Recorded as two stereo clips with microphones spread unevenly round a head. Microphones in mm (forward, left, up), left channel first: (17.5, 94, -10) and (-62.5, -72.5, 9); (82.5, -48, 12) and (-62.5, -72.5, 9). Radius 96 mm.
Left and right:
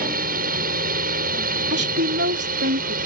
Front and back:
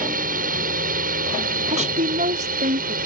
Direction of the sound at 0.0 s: 155° right.